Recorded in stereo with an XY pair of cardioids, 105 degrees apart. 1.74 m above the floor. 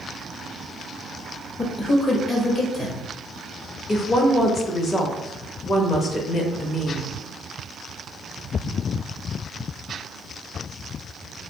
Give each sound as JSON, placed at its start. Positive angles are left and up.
{"t": 1.6, "sound": "a man speaking", "azimuth_deg": 40, "distance_m": 0.9}
{"t": 3.9, "sound": "a woman speaking", "azimuth_deg": 40, "distance_m": 0.8}